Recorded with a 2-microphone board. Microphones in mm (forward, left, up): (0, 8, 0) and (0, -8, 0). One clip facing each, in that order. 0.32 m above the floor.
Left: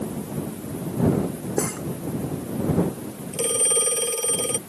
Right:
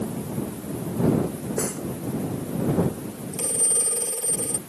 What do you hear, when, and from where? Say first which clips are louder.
1.6 s cutlery clinking: left 3 dB; 30° left (ahead or behind)
3.3 s a phone ringing: left 4 dB; 65° left (ahead or behind)